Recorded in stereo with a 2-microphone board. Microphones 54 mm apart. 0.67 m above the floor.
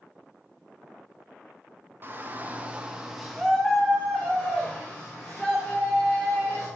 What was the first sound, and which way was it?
A shout, 35° right (ahead or behind).